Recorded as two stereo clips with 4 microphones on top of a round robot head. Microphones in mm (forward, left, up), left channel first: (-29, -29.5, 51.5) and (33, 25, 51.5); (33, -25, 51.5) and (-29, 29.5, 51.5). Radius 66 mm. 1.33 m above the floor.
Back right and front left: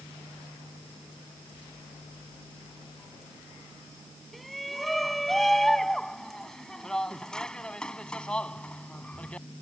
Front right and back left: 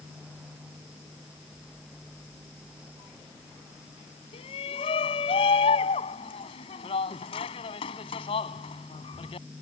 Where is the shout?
50° right; by 9.5 s 65° right.